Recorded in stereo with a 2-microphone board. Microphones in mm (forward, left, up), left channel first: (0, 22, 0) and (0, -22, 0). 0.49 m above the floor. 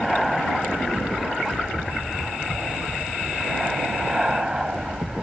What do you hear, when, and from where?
0.0 s an aircraft: centre (ahead or behind); by 5.2 s 20° right (ahead or behind)